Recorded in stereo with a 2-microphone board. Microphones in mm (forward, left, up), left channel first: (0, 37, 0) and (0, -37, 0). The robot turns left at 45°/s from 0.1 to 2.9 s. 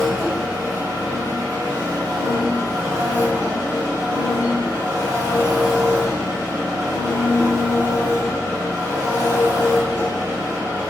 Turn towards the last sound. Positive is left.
turn(degrees=-125)